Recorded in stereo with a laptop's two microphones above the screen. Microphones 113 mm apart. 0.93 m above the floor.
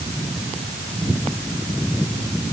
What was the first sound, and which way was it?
Only background noise.